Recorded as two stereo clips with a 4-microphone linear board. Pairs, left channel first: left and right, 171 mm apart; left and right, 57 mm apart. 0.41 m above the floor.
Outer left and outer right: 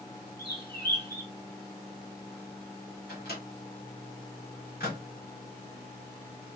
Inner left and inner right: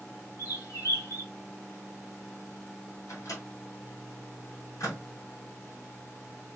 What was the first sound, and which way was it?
A bird, 70° left (ahead or behind).